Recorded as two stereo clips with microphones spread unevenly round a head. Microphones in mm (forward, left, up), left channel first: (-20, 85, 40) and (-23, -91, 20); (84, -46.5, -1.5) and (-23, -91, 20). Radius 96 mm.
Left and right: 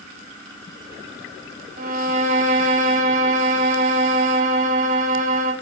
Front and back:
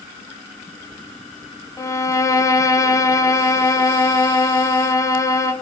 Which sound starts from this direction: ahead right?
A violin, at 1.8 s.